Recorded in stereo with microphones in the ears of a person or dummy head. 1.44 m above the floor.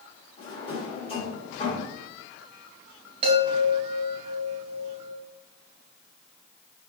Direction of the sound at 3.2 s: 30° right (ahead or behind).